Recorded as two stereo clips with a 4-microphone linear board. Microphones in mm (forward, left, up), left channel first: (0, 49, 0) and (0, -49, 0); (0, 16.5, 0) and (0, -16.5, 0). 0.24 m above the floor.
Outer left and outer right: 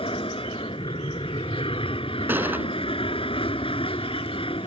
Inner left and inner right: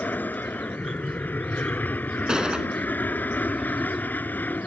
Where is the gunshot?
20° right (ahead or behind).